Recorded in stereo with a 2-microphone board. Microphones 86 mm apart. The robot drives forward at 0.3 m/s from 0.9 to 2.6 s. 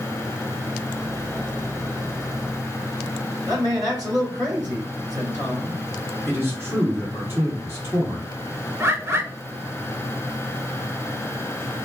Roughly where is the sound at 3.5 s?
Right.